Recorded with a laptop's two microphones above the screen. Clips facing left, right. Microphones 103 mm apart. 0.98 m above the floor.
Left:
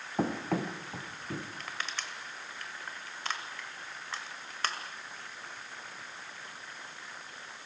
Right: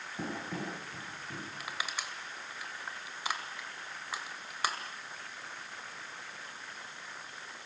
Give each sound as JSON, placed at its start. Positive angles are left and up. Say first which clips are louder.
{"t": 0.2, "sound": "running footsteps", "louder": "left 8 dB", "side_deg": 70, "distance_m": 3.0}
{"t": 1.6, "sound": "crushing", "louder": "even", "side_deg": -10, "distance_m": 1.7}